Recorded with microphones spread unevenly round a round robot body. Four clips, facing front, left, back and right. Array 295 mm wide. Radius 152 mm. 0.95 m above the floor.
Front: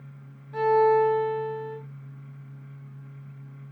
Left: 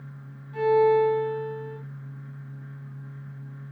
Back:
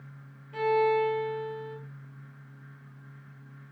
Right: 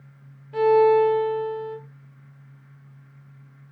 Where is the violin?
75° right, 3.5 m.